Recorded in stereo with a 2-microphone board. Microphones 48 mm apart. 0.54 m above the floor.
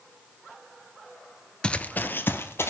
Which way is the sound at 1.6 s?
20° left (ahead or behind).